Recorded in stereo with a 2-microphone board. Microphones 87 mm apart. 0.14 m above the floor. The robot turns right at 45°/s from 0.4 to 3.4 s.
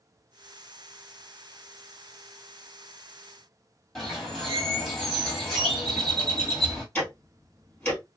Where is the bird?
5° left (ahead or behind), 1.4 m.